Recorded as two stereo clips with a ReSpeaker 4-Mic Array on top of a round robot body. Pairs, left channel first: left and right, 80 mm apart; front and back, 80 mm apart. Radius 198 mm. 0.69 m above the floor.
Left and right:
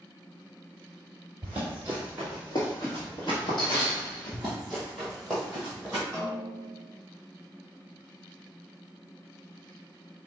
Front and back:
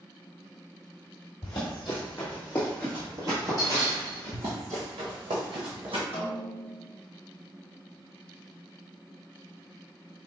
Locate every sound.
1.4 s running footsteps: 30° right, 0.9 m; by 4.4 s 135° left, 1.4 m
4.3 s running footsteps: 170° right, 0.7 m; by 6.0 s straight behind, 2 m
6.1 s a snare drum: 20° left, 0.7 m